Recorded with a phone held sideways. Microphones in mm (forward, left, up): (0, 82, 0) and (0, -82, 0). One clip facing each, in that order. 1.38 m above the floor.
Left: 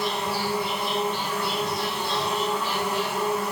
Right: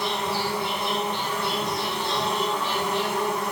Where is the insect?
5° left (ahead or behind), 1.4 m.